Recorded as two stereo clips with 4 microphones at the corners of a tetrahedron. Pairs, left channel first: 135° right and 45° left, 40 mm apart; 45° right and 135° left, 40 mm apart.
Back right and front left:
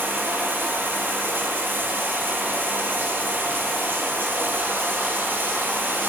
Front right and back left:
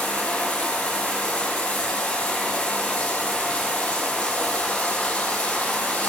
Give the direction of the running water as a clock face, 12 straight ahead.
12 o'clock.